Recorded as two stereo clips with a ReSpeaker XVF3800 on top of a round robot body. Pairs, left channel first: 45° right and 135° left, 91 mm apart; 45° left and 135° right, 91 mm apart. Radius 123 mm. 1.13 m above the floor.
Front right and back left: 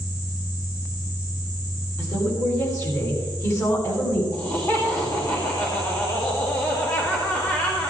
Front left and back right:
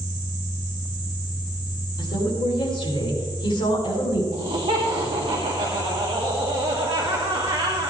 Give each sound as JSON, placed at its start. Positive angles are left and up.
{"t": 2.0, "sound": "a woman speaking", "azimuth_deg": 10, "distance_m": 5.0}
{"t": 4.3, "sound": "laughter", "azimuth_deg": -105, "distance_m": 2.5}